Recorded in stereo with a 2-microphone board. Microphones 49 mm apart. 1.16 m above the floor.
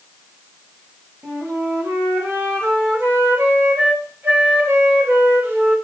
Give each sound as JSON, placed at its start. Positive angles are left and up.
{"t": 1.2, "sound": "a flute", "side_deg": -50, "distance_m": 2.5}